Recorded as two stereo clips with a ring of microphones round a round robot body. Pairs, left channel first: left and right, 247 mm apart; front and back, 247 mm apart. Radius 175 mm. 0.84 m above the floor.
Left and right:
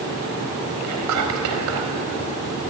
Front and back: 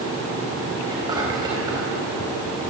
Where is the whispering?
100° right, 4.5 m.